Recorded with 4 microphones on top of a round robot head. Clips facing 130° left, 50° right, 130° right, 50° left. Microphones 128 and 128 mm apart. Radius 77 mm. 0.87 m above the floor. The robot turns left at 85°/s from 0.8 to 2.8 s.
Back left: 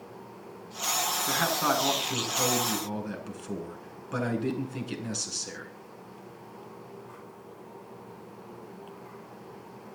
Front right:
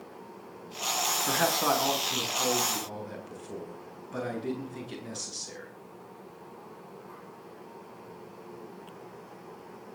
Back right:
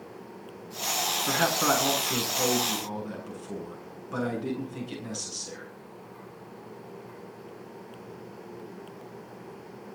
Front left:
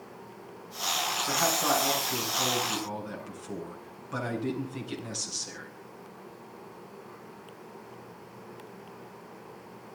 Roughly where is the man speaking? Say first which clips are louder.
Front right 1 dB, back right 2 dB; right.